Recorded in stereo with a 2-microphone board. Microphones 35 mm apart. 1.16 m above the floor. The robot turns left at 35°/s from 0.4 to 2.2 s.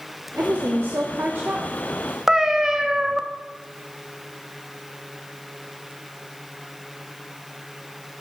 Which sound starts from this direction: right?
A woman speaking, at 0.4 s.